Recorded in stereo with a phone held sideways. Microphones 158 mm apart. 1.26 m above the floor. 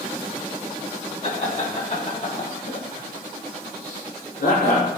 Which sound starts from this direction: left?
Laughter, at 1.2 s.